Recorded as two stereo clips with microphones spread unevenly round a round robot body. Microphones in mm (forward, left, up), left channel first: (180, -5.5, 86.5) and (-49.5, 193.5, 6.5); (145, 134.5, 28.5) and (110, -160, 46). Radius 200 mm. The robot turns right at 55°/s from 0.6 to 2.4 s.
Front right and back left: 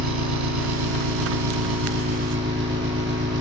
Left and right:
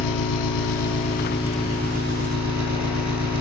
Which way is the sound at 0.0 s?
120° left.